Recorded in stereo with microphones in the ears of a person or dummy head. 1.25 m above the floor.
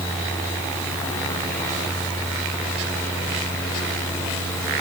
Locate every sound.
Only background noise.